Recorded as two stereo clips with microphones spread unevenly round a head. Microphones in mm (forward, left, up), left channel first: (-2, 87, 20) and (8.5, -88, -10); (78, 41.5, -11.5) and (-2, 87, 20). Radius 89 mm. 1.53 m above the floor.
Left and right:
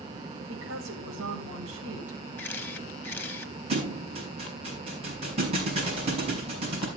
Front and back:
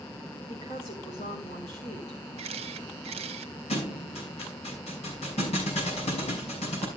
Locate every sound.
0.5 s a woman speaking: 70° right, 4 m
2.4 s a camera shutter: 170° left, 0.9 m
3.7 s a thud: 25° right, 5.5 m